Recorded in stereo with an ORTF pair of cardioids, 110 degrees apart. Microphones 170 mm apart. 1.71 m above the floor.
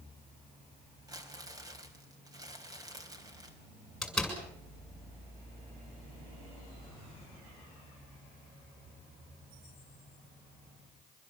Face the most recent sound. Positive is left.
turn(degrees=0)